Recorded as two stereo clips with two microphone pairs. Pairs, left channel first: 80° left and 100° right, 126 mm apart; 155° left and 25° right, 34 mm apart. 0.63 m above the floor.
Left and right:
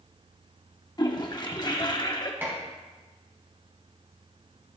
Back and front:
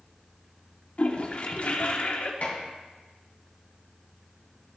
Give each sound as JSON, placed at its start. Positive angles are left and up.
{"t": 1.0, "sound": "a toilet flushing", "azimuth_deg": 125, "distance_m": 1.0}
{"t": 2.4, "sound": "dishes clattering", "azimuth_deg": -170, "distance_m": 3.0}